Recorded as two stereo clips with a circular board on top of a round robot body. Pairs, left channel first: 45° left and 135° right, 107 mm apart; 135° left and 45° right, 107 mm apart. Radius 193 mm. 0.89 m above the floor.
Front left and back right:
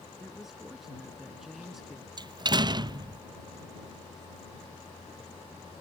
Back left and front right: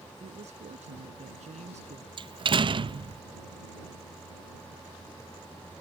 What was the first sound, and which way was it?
A woman speaking, 45° right.